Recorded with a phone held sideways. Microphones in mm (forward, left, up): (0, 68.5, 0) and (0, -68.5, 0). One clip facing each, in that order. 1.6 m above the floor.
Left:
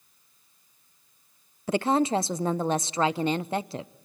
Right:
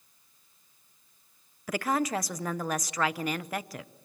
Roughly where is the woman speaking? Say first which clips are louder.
Left 5 dB; left.